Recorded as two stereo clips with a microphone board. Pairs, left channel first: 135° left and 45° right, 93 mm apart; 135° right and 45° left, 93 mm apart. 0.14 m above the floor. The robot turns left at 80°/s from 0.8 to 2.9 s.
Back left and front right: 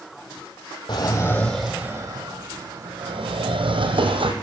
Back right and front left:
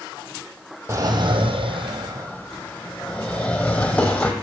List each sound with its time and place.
0.9 s a drawer: 105° left, 1.4 m; by 4.3 s 55° right, 1.4 m